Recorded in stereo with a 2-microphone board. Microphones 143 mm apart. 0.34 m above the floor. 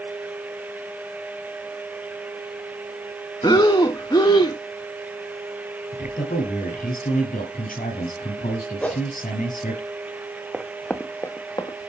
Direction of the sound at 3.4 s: 30° left (ahead or behind).